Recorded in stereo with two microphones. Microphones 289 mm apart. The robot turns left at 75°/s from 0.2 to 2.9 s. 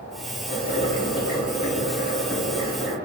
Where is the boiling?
45° left, 1.4 m; by 3.0 s 135° right, 1.4 m.